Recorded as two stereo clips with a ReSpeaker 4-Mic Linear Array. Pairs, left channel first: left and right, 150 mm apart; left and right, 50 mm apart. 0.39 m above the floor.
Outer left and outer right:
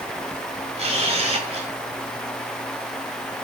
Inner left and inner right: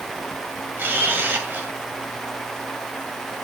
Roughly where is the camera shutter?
Right.